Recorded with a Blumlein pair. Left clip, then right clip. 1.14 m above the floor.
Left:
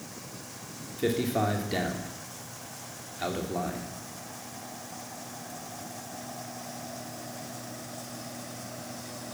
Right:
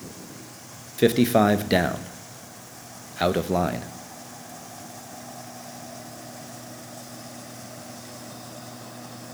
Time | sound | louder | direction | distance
1.0 | a man speaking | right 9 dB | 50° right | 1.0 m